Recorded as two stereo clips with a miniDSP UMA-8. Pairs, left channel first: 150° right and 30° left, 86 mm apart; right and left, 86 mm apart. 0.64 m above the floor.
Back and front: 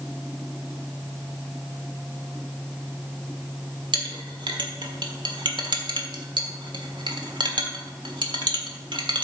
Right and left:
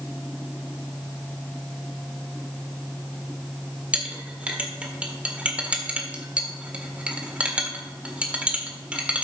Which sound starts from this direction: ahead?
A clink, at 3.9 s.